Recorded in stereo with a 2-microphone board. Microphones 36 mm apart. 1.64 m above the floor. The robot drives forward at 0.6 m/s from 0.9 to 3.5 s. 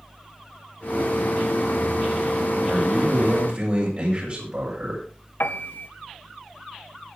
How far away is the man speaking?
About 7.5 m.